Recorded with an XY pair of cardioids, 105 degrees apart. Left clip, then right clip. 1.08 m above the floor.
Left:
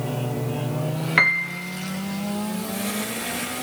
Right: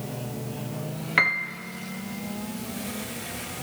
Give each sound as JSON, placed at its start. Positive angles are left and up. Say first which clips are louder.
{"t": 1.2, "sound": "a piano", "louder": "left 4 dB", "azimuth_deg": 15, "distance_m": 0.6}